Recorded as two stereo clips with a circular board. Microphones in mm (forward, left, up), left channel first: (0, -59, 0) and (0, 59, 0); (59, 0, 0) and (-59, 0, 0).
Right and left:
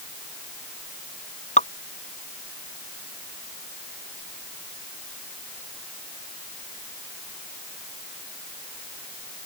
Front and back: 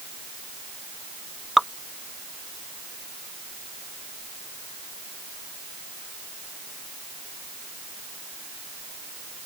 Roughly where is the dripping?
Right.